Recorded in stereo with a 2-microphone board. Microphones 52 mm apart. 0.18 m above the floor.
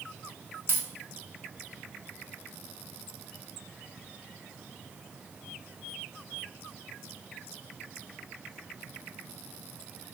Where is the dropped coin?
50° right (ahead or behind), 0.6 m.